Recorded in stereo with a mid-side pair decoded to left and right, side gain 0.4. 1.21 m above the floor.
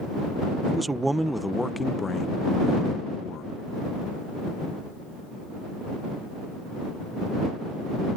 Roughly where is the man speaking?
Ahead right.